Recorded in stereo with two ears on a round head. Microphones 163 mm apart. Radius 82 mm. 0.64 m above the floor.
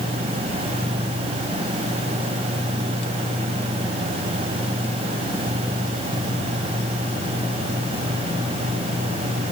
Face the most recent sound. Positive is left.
No sound to turn to.